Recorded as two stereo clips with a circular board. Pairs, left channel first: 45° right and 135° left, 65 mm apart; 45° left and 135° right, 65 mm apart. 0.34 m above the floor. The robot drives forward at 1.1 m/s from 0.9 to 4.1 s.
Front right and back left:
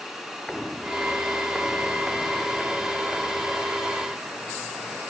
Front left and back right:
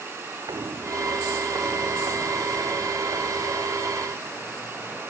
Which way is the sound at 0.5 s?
125° right.